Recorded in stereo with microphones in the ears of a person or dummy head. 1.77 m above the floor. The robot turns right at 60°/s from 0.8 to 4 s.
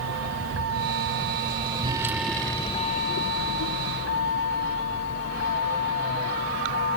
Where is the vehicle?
80° right; by 7.0 s 50° left (ahead or behind).